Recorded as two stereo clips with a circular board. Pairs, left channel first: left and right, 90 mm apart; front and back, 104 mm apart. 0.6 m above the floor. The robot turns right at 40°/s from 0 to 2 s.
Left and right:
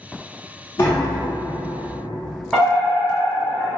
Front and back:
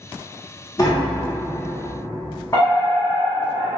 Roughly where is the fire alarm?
Ahead.